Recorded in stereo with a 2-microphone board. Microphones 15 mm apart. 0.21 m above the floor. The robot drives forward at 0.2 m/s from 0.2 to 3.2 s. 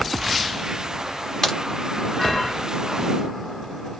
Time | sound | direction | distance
1.4 | a crack | 40° left (ahead or behind) | 1.0 m